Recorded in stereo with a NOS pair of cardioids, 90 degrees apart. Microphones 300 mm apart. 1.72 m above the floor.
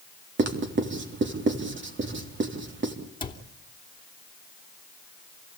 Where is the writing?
40° right, 4 m.